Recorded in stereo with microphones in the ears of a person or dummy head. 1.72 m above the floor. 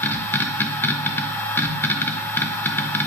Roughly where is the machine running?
Centre.